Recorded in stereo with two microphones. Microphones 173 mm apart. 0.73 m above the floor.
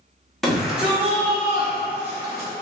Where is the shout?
Centre (ahead or behind), 0.7 m; by 2.5 s 15° right (ahead or behind), 1.5 m.